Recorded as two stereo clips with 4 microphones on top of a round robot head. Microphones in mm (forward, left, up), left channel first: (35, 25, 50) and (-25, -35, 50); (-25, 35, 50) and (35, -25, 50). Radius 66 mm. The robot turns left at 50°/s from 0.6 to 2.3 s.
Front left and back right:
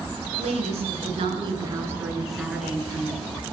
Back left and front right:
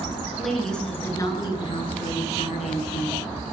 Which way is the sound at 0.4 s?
135° right.